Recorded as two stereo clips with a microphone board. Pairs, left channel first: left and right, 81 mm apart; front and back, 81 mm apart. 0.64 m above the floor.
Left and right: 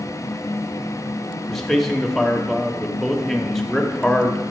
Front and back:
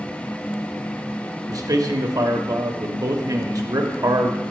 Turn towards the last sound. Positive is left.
turn(degrees=175)